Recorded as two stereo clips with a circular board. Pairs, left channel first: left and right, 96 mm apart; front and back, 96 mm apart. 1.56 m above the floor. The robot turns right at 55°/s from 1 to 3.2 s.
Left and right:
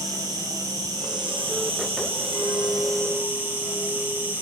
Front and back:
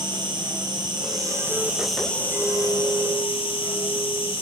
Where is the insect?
140° right, 1.3 m; by 4.4 s 20° right, 1.3 m.